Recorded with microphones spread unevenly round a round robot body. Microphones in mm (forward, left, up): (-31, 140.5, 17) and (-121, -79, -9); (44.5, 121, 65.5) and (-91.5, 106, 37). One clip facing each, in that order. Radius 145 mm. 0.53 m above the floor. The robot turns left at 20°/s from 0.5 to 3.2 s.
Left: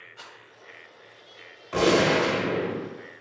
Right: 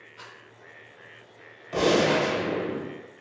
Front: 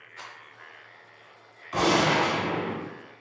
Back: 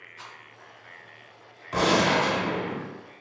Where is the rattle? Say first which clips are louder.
Even, front 1 dB; 20° right, 0.6 m.